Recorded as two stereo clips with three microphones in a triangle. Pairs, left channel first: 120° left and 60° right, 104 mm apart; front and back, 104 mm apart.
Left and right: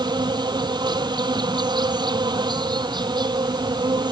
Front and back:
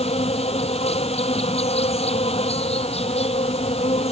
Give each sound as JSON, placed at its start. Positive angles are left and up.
{"t": 0.0, "sound": "an insect", "azimuth_deg": -15}